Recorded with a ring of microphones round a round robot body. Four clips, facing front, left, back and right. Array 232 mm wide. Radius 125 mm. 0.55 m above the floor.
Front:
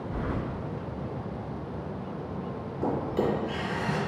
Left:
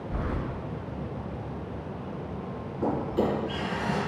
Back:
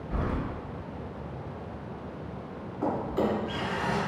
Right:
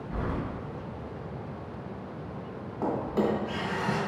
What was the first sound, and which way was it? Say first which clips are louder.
Keys jangling: even, back 2 dB; straight behind.